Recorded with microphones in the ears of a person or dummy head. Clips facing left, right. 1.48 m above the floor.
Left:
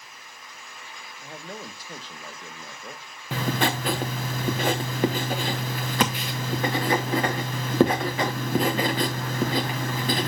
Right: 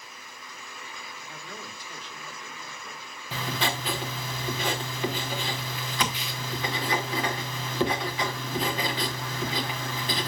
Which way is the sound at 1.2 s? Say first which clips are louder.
Left 7 dB; 35° left (ahead or behind).